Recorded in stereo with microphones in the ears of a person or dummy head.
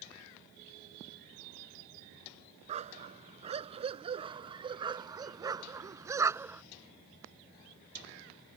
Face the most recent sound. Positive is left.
turn(degrees=-10)  # may be behind; listen again after turning